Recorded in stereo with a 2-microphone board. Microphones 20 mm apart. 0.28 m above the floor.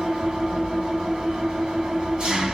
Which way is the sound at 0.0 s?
45° right (ahead or behind).